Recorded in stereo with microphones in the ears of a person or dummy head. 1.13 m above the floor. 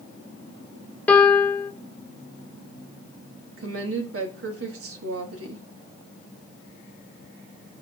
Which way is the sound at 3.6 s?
80° right.